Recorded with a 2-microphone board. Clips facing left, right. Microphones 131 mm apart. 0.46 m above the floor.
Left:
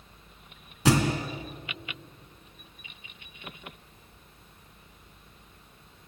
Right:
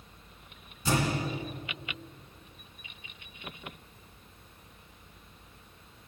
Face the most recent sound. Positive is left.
turn(degrees=85)